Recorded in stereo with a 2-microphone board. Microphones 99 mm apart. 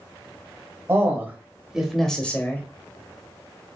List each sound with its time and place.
0.9 s a man speaking: 25° right (ahead or behind), 1.1 m; by 2.6 s 25° left (ahead or behind), 0.9 m